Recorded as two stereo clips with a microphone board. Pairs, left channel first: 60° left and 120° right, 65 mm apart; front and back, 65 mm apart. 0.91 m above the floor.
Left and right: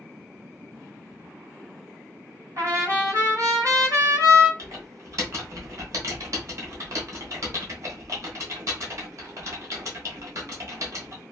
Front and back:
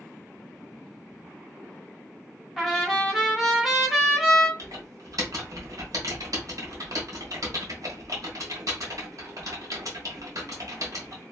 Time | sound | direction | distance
2.6 | a trumpet | 90° right | 1.2 m
4.6 | typing on a keyboard | 155° right | 1.4 m